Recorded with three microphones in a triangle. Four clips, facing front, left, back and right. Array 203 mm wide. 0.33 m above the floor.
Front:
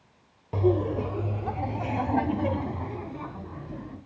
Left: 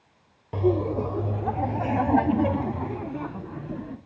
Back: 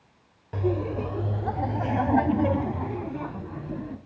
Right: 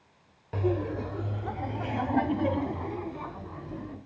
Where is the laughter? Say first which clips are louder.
Left 6 dB, front 3 dB; 45° left, 0.9 m; by 4.0 s 125° left, 3.5 m.